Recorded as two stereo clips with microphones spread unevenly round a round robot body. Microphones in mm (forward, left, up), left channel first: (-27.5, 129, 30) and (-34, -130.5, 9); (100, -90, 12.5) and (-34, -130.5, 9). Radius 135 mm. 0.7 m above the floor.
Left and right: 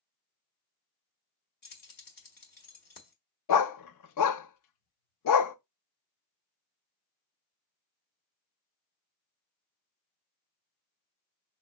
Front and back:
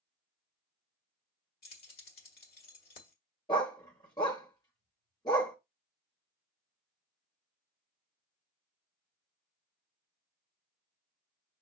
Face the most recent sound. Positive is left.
turn(degrees=90)